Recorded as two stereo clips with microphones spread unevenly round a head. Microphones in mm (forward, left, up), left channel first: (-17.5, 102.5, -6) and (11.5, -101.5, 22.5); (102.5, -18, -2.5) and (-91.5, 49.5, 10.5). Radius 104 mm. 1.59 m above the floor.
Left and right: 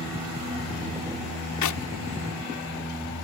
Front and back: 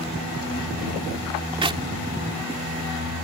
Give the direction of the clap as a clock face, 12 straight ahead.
9 o'clock.